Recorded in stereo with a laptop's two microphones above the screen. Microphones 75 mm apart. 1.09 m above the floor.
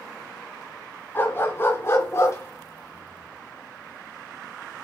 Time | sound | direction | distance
1.1 | a dog barking | 30° left (ahead or behind) | 3 m